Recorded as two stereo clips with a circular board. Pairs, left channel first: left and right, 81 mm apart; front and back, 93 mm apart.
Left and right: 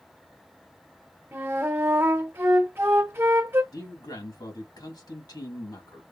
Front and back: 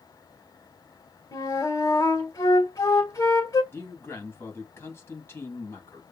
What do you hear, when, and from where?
1.3 s a flute: 35° right, 1.8 m
3.7 s a man speaking: 60° left, 2 m